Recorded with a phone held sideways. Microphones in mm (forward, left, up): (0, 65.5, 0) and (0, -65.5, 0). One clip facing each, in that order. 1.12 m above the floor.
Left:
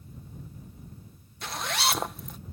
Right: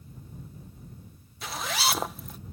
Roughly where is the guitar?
No guitar in this recording.